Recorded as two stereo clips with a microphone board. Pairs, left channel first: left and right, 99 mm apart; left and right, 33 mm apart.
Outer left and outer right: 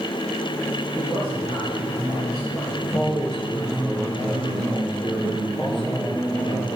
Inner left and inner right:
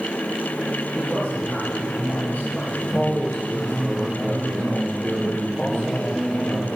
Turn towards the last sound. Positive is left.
turn(degrees=60)  # may be behind; listen again after turning